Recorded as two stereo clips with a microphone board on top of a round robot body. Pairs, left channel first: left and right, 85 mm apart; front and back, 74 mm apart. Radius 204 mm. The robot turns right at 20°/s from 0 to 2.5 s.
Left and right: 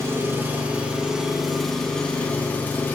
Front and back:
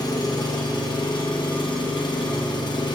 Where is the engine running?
30° right, 1.3 m; by 3.0 s 20° left, 1.3 m.